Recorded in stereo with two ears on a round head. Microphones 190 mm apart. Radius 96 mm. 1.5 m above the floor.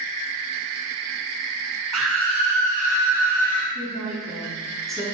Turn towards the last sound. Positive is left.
turn(degrees=0)  # may be behind; listen again after turning